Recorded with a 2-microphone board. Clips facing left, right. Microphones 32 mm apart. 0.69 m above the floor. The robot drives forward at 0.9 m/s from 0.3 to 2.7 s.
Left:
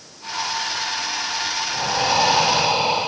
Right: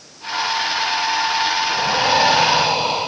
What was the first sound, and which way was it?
Breathing, 55° right (ahead or behind).